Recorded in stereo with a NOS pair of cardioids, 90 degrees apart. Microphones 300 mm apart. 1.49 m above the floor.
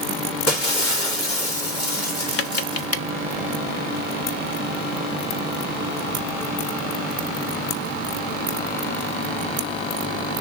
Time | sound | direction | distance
0.5 | breaking glass | 55° left | 2.5 m
2.4 | tapping | 50° left | 0.7 m